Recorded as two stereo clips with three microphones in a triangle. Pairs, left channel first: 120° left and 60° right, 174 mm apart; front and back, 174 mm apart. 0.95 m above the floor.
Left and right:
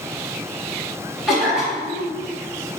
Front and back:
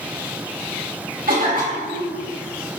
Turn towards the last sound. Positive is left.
turn(degrees=-150)